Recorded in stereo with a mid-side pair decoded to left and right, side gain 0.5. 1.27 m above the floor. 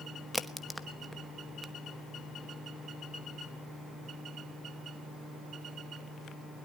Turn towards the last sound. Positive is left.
turn(degrees=5)